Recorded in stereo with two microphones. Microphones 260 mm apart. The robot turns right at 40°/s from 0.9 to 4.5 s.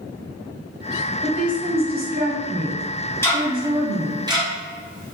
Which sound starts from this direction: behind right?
A woman speaking, at 1.2 s.